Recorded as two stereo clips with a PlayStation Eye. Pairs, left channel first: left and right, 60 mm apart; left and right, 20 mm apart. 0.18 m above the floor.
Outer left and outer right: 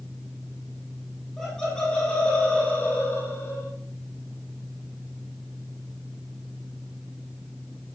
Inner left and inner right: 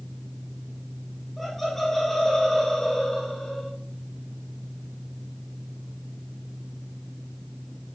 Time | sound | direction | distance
1.4 | laughter | 5° left (ahead or behind) | 5.5 m